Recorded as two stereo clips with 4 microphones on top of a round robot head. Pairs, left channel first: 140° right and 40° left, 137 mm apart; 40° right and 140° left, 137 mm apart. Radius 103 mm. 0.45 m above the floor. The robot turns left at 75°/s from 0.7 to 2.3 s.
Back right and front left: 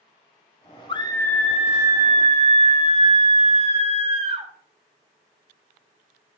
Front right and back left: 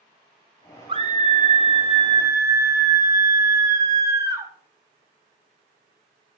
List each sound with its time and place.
0.9 s a scream: straight behind, 2.0 m; by 4.5 s 75° left, 2.0 m